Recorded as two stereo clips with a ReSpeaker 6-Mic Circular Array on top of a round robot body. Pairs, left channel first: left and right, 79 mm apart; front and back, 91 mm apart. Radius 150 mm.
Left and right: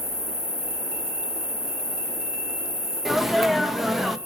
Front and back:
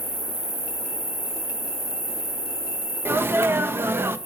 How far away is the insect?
About 1.8 m.